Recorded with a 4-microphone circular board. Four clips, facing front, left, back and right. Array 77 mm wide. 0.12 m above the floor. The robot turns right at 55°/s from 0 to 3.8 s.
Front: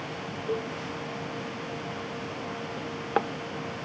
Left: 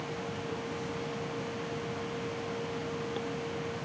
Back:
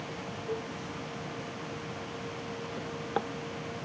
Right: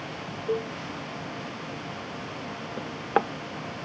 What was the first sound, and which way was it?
A cowbell, 70° right.